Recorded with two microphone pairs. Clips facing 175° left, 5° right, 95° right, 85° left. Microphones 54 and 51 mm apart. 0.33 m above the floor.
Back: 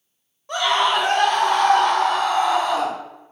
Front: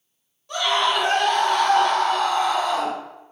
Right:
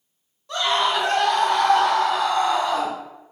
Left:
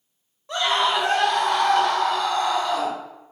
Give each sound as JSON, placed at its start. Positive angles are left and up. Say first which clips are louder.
{"t": 0.5, "sound": "a scream", "louder": "back 2 dB, even", "azimuth_deg": 130, "distance_m": 1.5}